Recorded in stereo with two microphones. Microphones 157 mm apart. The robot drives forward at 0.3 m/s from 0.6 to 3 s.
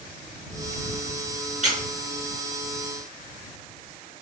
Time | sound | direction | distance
1.6 | a squeak | 50° right (ahead or behind) | 0.7 m